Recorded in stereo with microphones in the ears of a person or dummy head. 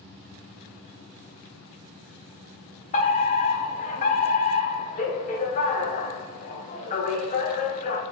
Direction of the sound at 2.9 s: 35° left (ahead or behind).